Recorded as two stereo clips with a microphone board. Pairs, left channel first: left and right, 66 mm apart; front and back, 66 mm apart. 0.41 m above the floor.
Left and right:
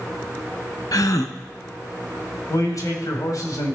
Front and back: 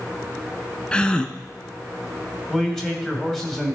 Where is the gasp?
75° left, 0.6 m.